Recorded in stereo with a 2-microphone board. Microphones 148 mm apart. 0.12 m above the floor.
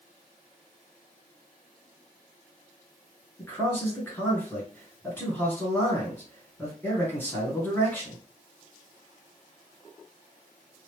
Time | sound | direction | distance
3.4 | a man speaking | 15° left (ahead or behind) | 2.0 m